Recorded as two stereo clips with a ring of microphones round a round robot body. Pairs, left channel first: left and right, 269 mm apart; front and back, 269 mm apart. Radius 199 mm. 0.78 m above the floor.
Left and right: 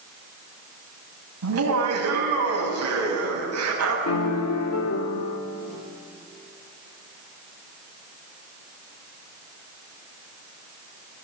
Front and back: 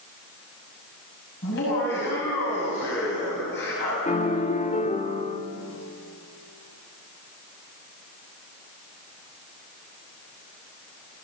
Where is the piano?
65° left, 1.9 m.